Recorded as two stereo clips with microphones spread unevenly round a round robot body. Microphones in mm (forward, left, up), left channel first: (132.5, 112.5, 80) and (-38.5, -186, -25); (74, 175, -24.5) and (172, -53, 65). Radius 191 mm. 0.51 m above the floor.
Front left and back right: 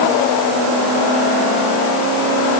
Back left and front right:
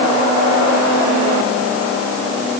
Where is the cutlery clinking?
No cutlery clinking in this recording.